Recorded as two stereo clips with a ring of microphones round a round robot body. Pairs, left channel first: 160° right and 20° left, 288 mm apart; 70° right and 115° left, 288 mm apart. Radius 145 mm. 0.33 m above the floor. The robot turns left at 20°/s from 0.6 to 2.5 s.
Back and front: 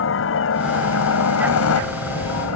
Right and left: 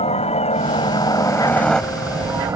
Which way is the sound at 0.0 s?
130° right.